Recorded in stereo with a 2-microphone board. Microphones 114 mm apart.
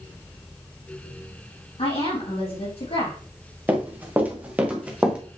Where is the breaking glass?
I don't hear breaking glass.